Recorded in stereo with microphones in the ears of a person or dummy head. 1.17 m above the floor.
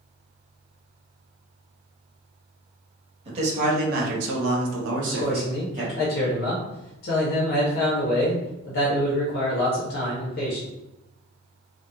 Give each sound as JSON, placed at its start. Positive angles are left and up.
{"t": 3.2, "sound": "a man speaking", "side_deg": -30, "distance_m": 1.0}
{"t": 5.0, "sound": "a man speaking", "side_deg": 50, "distance_m": 0.7}